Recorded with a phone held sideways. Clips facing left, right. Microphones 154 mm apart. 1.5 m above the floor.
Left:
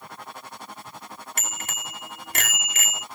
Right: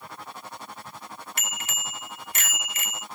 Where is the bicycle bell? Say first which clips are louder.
Left 2 dB; 50° left (ahead or behind); by 3.0 s 80° left.